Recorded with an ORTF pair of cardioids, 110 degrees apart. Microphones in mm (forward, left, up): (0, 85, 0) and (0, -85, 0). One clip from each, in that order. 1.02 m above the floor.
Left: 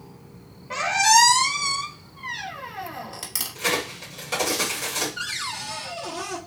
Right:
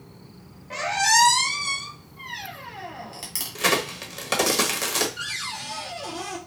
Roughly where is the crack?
Ahead right.